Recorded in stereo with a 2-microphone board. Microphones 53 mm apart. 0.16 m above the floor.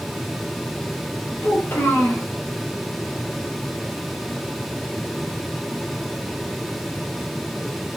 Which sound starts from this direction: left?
A child speaking, at 1.4 s.